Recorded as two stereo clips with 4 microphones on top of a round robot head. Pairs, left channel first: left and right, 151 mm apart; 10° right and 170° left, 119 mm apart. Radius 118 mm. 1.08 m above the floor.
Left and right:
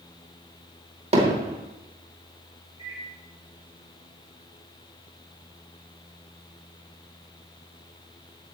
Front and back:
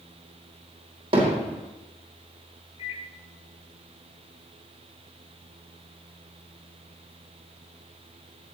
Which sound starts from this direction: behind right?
Hammering, at 1.1 s.